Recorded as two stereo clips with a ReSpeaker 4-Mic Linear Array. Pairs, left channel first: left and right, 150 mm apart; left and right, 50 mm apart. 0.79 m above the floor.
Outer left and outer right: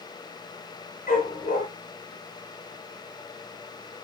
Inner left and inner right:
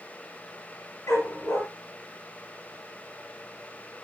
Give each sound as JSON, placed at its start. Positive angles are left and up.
{"t": 1.1, "sound": "a dog barking", "side_deg": 80, "distance_m": 7.5}